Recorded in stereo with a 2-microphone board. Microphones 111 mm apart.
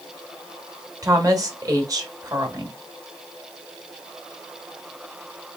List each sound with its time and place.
1.0 s a woman speaking: 30° right (ahead or behind), 1.0 m